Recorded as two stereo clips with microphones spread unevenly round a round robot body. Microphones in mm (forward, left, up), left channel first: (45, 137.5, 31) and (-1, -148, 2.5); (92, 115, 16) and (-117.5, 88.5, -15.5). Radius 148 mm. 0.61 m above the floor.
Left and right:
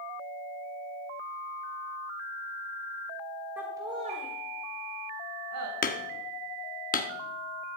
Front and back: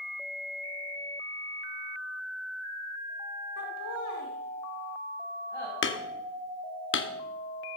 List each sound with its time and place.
3.6 s laughter: 15° right, 2 m; by 5.7 s 75° right, 2.5 m
5.8 s hammering: 20° left, 1.4 m